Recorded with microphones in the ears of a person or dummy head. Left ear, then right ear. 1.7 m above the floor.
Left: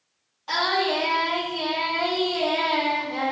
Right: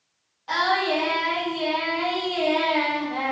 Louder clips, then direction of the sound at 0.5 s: Right 1 dB; 15° left (ahead or behind).